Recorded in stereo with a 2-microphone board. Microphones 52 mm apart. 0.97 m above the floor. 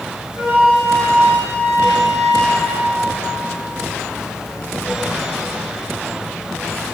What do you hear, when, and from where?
0.3 s a flute: 40° right (ahead or behind), 1.9 m